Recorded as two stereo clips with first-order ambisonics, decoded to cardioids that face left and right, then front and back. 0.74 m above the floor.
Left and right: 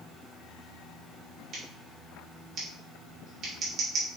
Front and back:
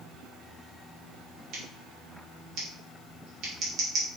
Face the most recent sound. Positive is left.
turn(degrees=-145)